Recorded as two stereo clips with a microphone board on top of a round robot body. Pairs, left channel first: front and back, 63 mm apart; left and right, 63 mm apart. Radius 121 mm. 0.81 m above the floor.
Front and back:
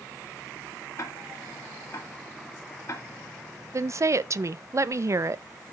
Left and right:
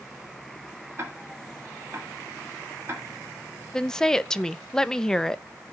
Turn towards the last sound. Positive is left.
turn(degrees=165)